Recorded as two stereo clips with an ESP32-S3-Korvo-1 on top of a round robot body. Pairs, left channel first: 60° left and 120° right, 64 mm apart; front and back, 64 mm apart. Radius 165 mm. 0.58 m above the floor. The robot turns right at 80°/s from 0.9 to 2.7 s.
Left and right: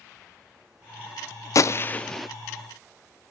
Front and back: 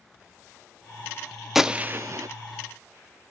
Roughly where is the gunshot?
Left.